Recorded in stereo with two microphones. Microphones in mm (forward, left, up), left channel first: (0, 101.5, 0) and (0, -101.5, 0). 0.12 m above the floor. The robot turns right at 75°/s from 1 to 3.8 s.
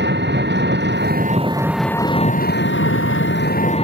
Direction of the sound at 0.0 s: 60° right.